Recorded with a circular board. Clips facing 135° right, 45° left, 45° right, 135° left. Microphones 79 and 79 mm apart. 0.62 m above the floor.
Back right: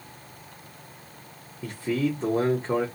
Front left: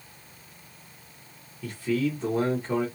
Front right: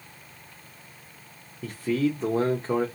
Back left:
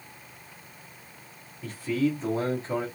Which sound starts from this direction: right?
A man speaking, at 1.6 s.